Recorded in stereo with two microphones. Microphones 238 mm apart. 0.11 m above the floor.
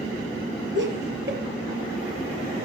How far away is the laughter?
About 2.5 m.